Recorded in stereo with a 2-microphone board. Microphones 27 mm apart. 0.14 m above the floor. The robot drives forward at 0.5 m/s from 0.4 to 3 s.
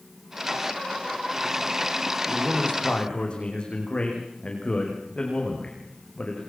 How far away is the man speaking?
About 9 m.